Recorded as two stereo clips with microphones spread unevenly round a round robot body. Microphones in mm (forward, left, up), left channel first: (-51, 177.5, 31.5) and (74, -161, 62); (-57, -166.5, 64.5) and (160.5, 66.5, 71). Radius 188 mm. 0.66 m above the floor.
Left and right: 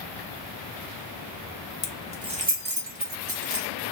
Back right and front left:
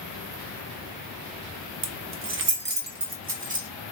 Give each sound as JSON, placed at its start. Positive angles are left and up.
{"t": 1.8, "sound": "keys jangling", "azimuth_deg": 45, "distance_m": 0.5}